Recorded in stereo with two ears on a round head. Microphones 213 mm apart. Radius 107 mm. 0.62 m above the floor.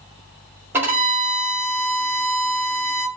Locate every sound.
0.7 s a violin: 10° right (ahead or behind), 2.0 m